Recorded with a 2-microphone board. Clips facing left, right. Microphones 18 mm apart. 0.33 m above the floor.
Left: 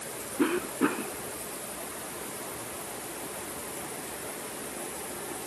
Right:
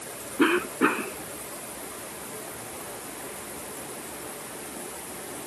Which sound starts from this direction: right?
A cough, at 0.4 s.